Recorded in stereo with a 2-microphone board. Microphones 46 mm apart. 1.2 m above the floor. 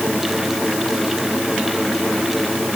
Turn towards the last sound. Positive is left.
No sound to turn to.